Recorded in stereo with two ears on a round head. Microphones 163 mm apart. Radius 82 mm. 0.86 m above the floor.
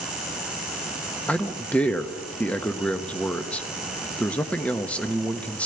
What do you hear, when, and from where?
1.3 s a man speaking: 5° left (ahead or behind), 1.1 m